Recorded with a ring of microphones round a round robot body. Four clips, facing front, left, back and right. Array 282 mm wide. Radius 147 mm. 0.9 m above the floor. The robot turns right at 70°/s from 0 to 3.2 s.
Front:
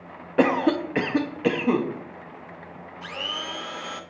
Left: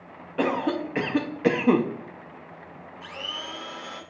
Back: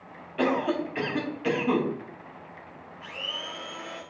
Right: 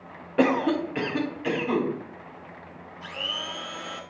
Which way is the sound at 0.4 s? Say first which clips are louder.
Right 3 dB, front 5 dB; 20° right.